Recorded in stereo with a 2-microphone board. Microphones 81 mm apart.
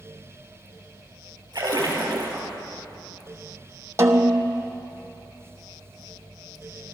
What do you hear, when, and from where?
1.5 s a splash: 50° right (ahead or behind), 3.5 m
4.0 s a snare drum: 35° right (ahead or behind), 1.0 m